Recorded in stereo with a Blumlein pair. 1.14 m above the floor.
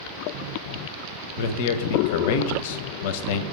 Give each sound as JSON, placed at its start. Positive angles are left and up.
{"t": 1.4, "sound": "a man speaking", "azimuth_deg": 50, "distance_m": 0.6}